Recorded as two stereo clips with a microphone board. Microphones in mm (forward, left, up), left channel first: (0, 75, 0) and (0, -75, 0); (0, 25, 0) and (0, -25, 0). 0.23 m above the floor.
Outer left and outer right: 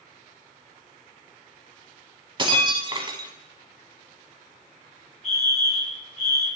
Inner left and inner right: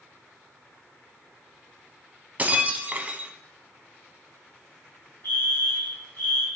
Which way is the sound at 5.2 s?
55° left (ahead or behind).